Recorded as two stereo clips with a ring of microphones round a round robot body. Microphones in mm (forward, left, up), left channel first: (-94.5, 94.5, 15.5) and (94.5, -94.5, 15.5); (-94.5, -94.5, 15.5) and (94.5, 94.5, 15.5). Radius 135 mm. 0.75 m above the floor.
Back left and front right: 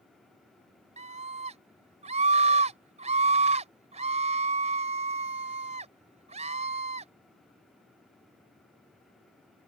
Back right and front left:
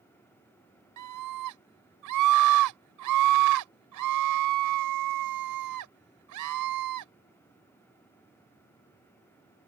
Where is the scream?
20° left.